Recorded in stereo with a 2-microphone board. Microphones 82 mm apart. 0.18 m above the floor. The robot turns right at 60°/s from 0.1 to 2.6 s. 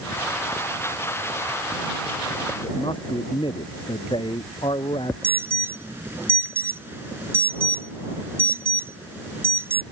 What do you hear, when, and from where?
2.6 s a man speaking: 85° left
5.2 s an alarm: 25° right (ahead or behind)